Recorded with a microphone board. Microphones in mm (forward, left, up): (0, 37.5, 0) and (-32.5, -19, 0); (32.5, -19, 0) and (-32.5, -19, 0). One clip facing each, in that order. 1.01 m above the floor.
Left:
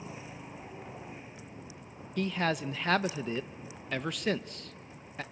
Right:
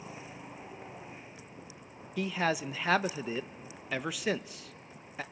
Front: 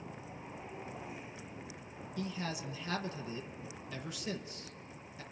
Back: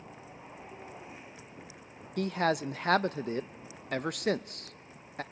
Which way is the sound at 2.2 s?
155° left.